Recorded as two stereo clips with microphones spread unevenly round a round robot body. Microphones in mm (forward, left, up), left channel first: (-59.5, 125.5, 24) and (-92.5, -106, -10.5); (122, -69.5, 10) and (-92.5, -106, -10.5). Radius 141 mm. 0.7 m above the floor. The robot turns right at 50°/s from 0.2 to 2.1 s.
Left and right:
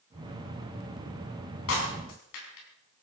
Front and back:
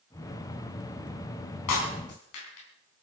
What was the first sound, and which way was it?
Breaking glass, 30° left.